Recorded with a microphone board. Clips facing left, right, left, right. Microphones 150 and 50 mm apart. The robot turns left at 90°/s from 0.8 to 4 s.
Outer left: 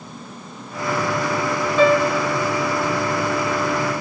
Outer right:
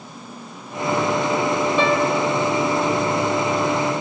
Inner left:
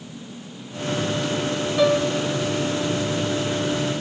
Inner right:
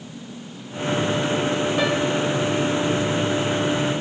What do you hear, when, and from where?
1.8 s a piano: 30° right, 1.8 m; by 2.3 s 75° right, 1.8 m